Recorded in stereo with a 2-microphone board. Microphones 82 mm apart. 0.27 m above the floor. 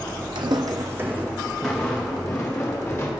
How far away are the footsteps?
About 1.0 m.